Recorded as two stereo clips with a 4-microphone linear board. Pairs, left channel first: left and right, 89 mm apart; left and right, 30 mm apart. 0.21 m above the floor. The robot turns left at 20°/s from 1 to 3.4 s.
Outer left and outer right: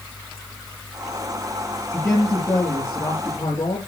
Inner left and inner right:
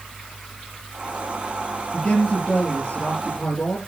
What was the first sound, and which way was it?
A man speaking, 20° left (ahead or behind).